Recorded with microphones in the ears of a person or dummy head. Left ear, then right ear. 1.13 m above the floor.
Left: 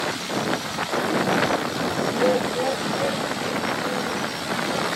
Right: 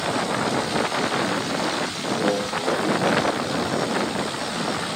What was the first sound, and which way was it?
Laughter, 85° left.